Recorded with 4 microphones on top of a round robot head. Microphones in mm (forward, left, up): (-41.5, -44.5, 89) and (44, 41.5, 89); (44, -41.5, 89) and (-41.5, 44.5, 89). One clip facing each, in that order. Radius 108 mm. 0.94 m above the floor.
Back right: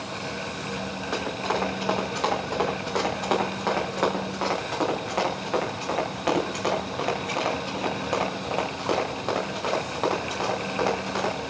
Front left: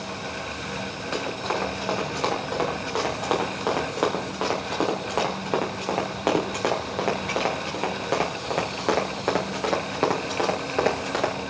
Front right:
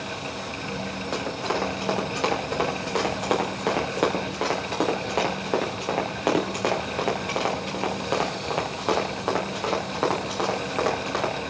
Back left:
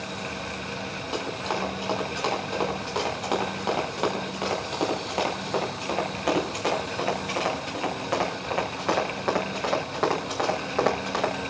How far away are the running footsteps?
About 7 m.